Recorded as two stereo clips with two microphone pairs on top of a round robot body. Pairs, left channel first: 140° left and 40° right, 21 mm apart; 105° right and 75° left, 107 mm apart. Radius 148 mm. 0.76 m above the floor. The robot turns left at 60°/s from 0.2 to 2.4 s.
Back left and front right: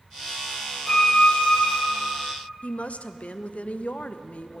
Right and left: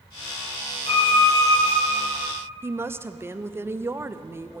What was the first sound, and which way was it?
A violin, 140° right.